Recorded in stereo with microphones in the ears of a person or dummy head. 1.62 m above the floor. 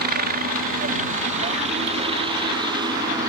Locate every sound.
0.0 s a helicopter: 50° right (ahead or behind); by 3.3 s 20° right (ahead or behind)